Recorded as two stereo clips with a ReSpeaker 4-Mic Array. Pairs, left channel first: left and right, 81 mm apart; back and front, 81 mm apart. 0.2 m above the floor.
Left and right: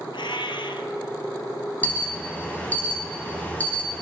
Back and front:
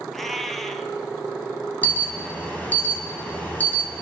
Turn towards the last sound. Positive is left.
turn(degrees=135)